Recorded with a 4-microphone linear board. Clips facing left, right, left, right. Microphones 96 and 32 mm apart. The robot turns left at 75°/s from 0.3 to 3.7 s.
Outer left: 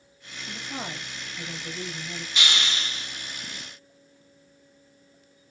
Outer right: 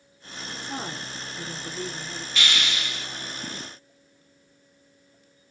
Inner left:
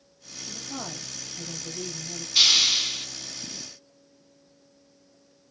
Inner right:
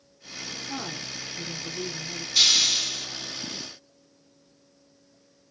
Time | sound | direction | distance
0.5 | a woman speaking | 85° right | 2.5 m
2.4 | a hiss | 145° left | 1.0 m